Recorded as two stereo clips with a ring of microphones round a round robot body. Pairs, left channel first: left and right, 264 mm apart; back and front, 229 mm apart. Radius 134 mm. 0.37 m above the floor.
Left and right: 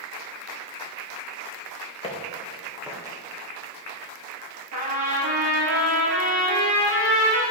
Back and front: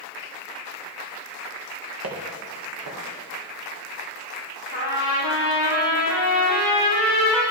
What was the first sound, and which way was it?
Footsteps, 20° left.